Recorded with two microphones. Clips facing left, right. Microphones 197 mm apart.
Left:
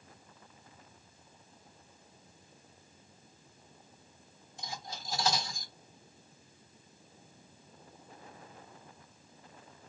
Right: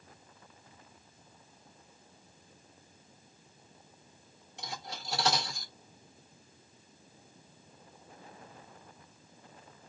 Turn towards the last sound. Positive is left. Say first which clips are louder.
# right 1 dB
turn(degrees=-80)